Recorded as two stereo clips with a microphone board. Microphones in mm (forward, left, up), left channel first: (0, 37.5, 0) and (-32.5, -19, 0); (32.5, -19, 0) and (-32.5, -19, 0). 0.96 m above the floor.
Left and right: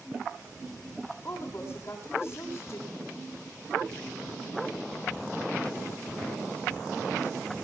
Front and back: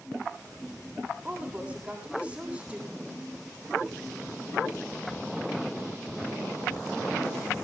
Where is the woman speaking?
110° left, 8 m.